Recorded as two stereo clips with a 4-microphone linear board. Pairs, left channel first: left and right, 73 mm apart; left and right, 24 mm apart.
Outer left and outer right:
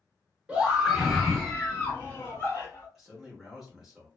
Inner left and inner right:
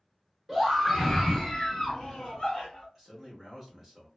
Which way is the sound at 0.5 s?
15° right (ahead or behind).